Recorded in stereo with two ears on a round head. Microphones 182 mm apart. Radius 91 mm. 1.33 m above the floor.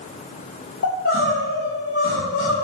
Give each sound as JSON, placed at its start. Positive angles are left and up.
{"t": 0.8, "sound": "crying", "side_deg": 65, "distance_m": 2.0}